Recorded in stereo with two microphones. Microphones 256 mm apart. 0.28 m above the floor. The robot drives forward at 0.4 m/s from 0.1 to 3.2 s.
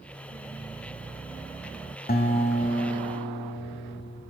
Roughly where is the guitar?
Left.